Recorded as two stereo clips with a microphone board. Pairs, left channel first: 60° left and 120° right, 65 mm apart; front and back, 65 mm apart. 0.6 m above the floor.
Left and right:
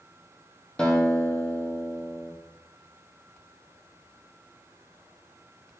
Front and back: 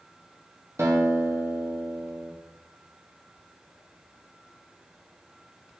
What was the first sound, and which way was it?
A guitar, 135° left.